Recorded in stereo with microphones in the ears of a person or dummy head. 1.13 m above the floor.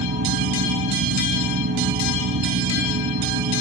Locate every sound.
0.0 s a fan: 70° right (ahead or behind)